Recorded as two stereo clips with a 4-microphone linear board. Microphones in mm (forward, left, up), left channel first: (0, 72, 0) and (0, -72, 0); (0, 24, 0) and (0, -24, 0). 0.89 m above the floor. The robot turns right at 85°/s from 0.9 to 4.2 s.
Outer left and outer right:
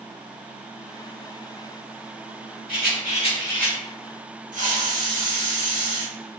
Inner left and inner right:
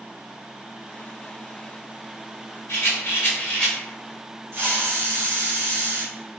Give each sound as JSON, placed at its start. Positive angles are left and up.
{"t": 2.7, "sound": "a rattle", "azimuth_deg": 90, "distance_m": 1.3}
{"t": 4.5, "sound": "a hiss", "side_deg": -60, "distance_m": 1.4}